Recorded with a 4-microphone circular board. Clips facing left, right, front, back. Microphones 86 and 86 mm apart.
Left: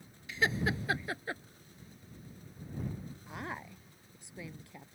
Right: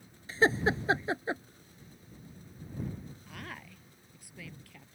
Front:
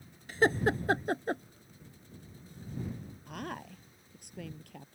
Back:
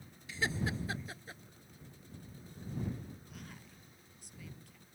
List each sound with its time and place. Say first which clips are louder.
0.3 s laughter: right 5 dB, front 9 dB; 40° right; by 1.4 s 25° right
3.3 s a woman speaking: left 5 dB, front 12 dB; 25° left